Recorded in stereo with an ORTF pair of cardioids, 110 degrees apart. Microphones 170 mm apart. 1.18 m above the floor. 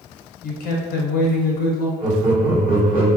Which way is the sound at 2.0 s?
60° right.